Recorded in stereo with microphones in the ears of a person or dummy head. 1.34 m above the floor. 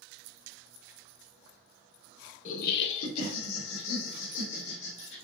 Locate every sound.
2.5 s laughter: 40° left (ahead or behind), 0.6 m; by 5.2 s 60° left (ahead or behind), 2 m